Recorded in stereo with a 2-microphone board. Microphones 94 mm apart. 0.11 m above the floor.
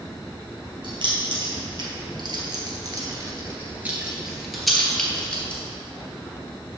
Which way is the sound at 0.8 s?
60° right (ahead or behind).